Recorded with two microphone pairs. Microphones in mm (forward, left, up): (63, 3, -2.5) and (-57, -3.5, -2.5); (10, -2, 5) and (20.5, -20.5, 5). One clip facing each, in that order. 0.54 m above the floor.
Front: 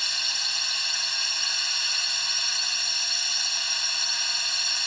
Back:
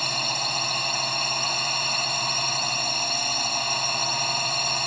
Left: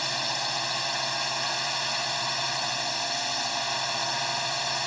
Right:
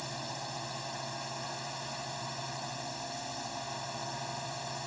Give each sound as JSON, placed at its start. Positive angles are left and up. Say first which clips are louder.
{"t": 0.0, "sound": "a drone", "louder": "back 11 dB, left 11 dB", "azimuth_deg": 150}